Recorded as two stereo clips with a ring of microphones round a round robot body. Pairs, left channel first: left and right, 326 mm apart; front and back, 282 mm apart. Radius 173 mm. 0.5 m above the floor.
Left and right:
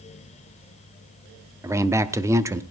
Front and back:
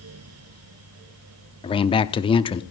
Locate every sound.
1.6 s a man speaking: 25° right, 0.7 m